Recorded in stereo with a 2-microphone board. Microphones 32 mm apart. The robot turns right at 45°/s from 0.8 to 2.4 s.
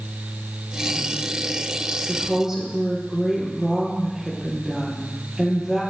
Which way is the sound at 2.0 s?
5° left (ahead or behind).